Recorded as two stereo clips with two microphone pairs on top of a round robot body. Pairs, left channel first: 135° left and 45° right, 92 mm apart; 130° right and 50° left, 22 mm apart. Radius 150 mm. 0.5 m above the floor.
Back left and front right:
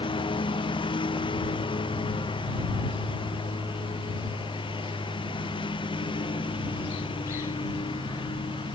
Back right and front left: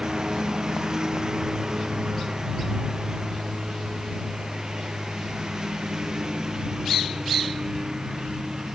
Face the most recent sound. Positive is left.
turn(degrees=110)